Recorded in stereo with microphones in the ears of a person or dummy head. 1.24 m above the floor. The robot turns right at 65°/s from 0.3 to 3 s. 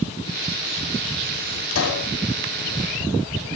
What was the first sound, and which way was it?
A pop, 80° left.